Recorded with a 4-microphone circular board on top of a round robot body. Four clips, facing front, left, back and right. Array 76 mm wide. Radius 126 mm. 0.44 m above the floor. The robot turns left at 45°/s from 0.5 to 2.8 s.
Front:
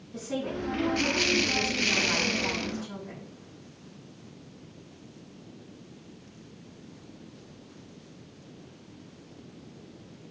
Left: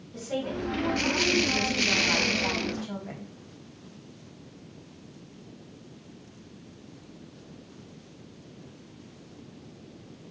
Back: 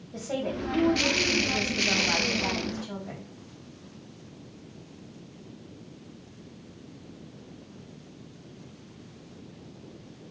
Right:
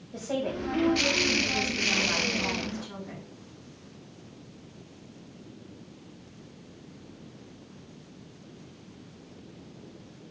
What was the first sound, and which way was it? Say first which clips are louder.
A woman speaking: right 1 dB, back 1 dB; 125° right.